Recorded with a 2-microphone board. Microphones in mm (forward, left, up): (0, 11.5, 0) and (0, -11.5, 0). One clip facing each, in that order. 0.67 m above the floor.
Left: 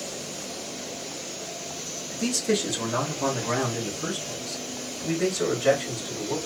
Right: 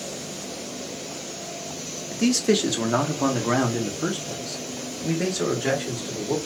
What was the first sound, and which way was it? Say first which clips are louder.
A man speaking: right 5 dB; 45° right (ahead or behind).